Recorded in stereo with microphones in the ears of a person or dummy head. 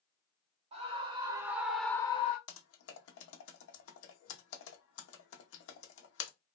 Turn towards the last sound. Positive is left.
turn(degrees=70)  # may be behind; listen again after turning